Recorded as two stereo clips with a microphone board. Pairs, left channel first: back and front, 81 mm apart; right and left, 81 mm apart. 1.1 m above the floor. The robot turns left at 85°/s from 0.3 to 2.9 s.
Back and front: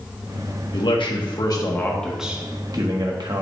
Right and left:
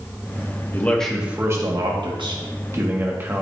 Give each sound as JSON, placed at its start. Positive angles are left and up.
{"t": 0.7, "sound": "a man speaking", "azimuth_deg": -150, "distance_m": 1.5}